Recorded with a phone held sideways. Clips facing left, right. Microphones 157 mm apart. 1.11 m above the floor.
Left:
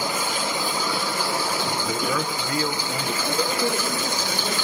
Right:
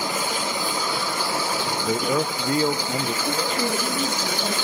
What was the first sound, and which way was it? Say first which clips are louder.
A man speaking: right 6 dB; 30° right (ahead or behind).